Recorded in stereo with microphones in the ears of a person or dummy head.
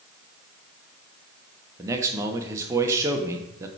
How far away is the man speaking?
About 1.0 m.